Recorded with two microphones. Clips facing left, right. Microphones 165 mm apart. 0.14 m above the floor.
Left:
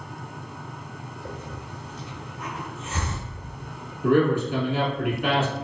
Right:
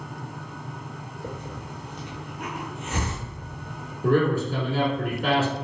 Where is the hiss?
70° right (ahead or behind), 1.1 m.